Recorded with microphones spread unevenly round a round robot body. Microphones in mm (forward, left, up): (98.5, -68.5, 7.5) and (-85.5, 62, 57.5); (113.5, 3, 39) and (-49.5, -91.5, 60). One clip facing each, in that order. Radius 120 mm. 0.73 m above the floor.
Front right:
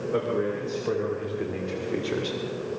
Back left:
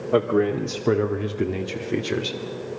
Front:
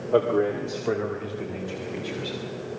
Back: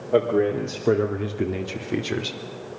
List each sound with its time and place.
0.1 s a man speaking: 125° left, 2 m; by 2.4 s 150° right, 2.5 m